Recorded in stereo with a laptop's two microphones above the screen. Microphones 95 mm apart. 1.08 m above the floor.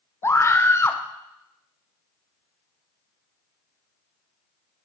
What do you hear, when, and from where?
0.2 s a scream: 25° left (ahead or behind), 0.7 m